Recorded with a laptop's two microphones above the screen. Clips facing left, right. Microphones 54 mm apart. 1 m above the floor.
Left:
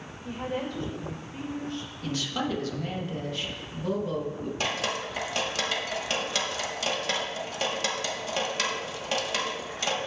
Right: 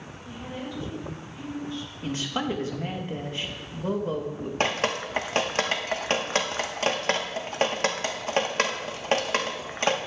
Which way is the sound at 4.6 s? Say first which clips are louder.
Right 5 dB; 45° right (ahead or behind).